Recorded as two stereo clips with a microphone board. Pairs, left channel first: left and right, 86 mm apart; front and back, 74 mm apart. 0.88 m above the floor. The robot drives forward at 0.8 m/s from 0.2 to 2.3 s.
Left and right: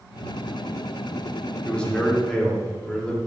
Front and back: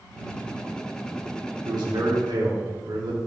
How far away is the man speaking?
About 1.8 m.